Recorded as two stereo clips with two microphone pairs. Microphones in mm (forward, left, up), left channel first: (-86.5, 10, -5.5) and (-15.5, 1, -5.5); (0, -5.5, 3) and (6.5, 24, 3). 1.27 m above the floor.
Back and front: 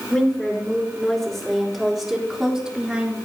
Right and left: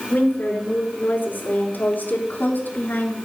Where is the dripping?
I don't hear dripping.